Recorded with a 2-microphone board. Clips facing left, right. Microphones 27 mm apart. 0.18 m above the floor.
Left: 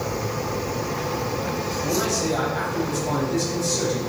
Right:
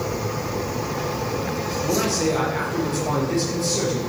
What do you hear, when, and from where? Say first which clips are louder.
1.8 s a man speaking: right 2 dB; 70° right (ahead or behind), 4 m